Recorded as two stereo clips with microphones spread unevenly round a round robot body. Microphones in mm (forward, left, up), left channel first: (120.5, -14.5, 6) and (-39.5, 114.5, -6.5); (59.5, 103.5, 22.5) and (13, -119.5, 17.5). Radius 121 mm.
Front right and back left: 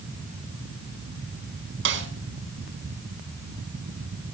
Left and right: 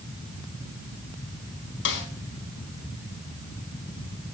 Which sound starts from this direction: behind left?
A snare drum, at 1.9 s.